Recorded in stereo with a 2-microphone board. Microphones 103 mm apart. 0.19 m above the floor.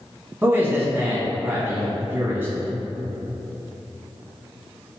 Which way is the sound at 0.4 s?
25° right (ahead or behind).